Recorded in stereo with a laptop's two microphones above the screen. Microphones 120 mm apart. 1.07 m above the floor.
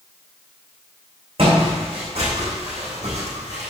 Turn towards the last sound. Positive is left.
turn(degrees=-65)  # may be behind; listen again after turning